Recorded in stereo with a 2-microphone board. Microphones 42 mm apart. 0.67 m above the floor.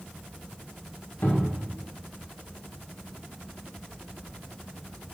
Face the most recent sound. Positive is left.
turn(degrees=65)  # may be behind; listen again after turning